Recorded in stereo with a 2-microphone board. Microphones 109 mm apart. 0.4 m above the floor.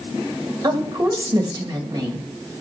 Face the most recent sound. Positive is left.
turn(degrees=-35)  # may be behind; listen again after turning